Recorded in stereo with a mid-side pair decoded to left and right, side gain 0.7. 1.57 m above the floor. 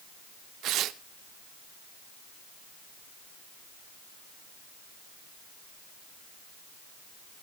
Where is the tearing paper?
50° right, 0.8 m.